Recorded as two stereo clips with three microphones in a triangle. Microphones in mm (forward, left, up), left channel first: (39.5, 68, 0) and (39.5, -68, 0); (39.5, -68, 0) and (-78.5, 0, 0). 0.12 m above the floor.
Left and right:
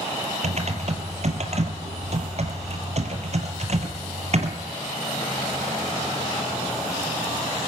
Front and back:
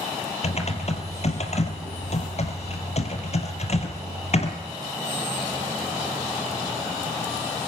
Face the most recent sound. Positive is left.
turn(degrees=-60)